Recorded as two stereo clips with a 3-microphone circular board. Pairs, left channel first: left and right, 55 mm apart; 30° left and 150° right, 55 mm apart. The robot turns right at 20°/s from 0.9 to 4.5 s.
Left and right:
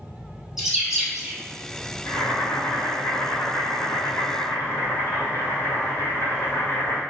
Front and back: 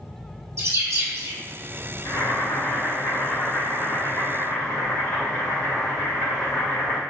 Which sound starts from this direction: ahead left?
Boiling, at 2.0 s.